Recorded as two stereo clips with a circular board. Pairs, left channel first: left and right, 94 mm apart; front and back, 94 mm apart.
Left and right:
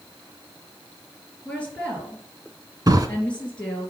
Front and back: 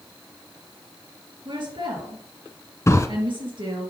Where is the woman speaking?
165° left, 3.5 m.